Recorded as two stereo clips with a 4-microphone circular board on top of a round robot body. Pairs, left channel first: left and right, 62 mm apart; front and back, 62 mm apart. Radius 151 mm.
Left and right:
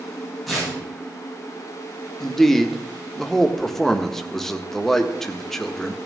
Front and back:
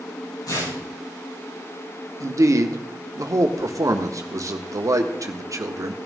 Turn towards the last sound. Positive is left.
turn(degrees=175)